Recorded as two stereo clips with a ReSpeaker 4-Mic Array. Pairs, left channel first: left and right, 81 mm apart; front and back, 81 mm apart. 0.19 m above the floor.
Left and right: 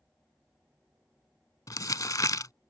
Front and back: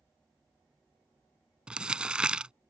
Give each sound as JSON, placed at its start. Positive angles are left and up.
{"t": 1.7, "sound": "crumpling", "azimuth_deg": 105}